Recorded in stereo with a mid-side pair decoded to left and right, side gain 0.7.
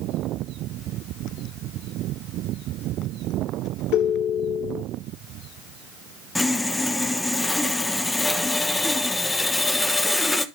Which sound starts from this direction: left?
A ringtone, at 3.9 s.